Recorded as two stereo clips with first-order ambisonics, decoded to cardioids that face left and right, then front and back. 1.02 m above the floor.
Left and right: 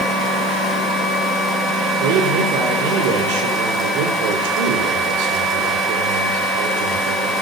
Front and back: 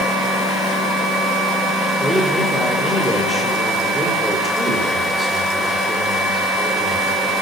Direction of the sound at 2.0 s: 95° right.